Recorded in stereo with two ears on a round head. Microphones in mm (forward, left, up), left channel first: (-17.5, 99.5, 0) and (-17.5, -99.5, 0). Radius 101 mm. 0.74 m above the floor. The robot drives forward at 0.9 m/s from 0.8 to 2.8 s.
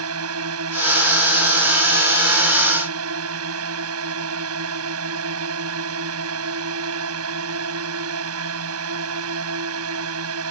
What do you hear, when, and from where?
0.0 s a drone: 75° right (ahead or behind)